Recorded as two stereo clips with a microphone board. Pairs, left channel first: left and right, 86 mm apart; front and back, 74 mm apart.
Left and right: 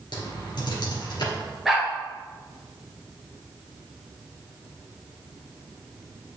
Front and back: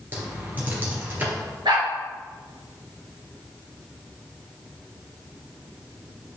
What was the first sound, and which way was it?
Typing on a keyboard, 115° left.